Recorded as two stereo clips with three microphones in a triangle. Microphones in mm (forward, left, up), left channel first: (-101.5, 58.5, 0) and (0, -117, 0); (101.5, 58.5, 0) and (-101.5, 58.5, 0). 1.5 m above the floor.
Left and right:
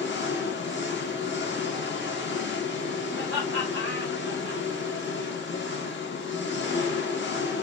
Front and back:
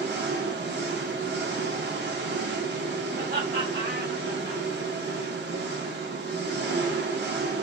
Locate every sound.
0.0 s an engine running: 145° left, 1.2 m
3.1 s laughter: 135° left, 1.3 m